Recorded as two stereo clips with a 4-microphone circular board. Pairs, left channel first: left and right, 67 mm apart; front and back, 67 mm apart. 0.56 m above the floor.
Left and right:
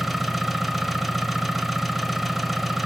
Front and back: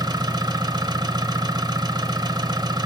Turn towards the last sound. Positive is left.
turn(degrees=-175)